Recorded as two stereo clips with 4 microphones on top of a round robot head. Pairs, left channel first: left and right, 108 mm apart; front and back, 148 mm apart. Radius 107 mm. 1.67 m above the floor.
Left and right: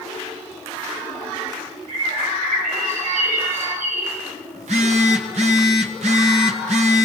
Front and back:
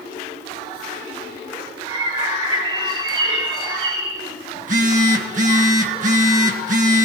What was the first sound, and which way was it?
A bird, 115° right.